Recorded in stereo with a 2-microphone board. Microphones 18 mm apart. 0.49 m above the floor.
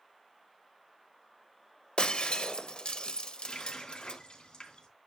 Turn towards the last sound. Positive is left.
turn(degrees=60)  # may be behind; listen again after turning